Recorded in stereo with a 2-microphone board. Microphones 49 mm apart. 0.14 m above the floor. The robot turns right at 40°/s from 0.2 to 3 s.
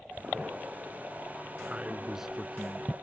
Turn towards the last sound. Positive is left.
turn(degrees=15)